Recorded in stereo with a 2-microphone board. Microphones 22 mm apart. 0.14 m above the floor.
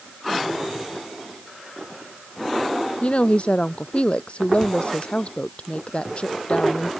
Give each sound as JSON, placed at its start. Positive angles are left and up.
{"t": 3.0, "sound": "a woman speaking", "side_deg": 60}